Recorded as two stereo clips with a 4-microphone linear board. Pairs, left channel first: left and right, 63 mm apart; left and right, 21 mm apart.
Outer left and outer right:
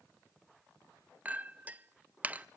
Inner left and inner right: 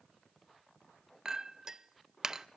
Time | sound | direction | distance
1.2 | a clink | 25° right (ahead or behind) | 0.6 m